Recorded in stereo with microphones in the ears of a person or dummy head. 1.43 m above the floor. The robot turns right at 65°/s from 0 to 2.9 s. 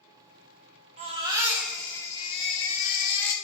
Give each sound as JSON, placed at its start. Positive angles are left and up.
{"t": 1.0, "sound": "a baby crying", "azimuth_deg": -50, "distance_m": 0.7}